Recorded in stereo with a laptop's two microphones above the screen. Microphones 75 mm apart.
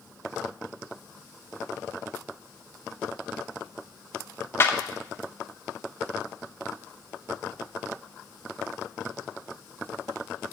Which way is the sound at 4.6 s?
30° left (ahead or behind).